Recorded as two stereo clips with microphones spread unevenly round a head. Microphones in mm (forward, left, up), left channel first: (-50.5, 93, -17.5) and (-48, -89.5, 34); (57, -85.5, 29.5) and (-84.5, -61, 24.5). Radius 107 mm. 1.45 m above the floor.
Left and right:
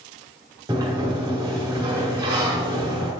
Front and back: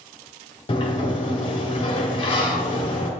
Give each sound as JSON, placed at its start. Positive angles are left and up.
{"t": 0.7, "sound": "a sliding door", "azimuth_deg": -45, "distance_m": 1.3}